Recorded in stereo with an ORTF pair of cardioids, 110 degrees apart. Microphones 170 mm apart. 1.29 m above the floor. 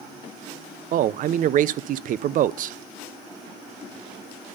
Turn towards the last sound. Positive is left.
turn(degrees=-55)